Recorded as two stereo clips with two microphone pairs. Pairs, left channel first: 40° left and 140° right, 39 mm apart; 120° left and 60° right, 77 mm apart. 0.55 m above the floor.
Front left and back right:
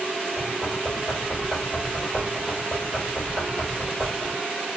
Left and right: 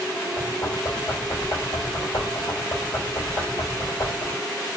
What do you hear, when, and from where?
0.4 s knocking: 115° left, 1.6 m